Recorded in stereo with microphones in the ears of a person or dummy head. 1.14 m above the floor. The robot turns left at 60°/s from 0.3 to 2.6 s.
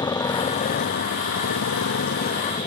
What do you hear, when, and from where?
0.0 s a motorcycle: 15° left (ahead or behind); by 2.7 s 30° left (ahead or behind)